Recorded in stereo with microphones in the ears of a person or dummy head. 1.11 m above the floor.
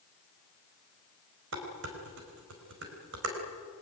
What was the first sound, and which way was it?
Dishes clattering, 80° right.